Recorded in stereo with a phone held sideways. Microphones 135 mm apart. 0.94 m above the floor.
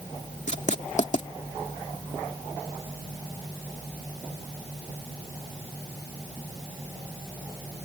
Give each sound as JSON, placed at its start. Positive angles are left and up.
{"t": 0.5, "sound": "writing", "side_deg": 65}